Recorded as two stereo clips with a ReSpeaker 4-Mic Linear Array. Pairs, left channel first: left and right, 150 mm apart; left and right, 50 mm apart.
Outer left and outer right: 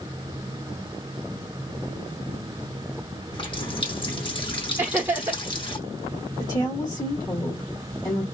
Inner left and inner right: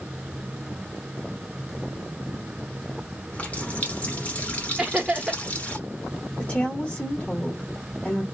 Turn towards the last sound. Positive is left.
turn(degrees=30)  # may be behind; listen again after turning